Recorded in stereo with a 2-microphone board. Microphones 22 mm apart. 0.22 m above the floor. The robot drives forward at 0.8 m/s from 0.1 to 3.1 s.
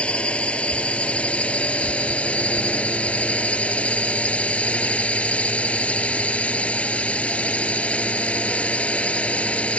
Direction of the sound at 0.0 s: 60° left (ahead or behind).